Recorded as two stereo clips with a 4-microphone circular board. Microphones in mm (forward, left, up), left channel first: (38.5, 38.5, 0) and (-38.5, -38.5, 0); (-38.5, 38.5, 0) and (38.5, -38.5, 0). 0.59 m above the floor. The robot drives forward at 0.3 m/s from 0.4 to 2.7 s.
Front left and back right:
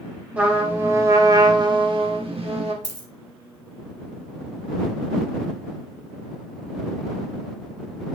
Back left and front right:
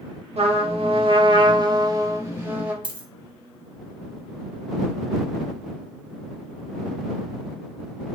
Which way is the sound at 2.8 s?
80° right.